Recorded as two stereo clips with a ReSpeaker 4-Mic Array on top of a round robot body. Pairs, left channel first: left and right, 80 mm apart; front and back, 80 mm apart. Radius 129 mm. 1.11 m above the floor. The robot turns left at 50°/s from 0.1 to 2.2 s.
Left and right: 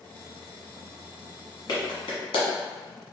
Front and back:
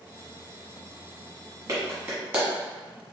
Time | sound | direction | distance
1.7 | a clap | 135° left | 1.3 m